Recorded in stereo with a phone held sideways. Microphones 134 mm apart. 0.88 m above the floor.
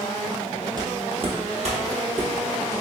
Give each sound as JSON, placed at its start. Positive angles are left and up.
{"t": 0.8, "sound": "footsteps", "side_deg": -30, "distance_m": 1.0}